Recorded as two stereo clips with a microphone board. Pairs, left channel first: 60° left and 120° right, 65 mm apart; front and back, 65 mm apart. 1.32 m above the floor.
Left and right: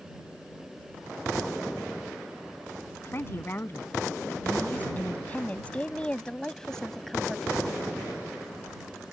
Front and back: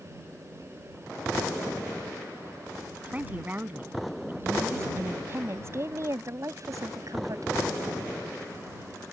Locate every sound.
3.0 s a woman speaking: 115° left; by 7.5 s 150° left